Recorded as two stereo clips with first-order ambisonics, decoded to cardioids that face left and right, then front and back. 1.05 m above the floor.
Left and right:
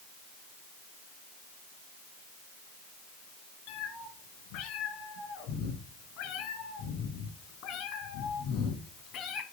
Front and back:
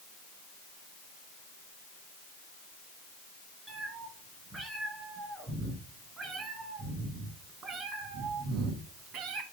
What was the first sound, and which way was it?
A cat meowing, 100° left.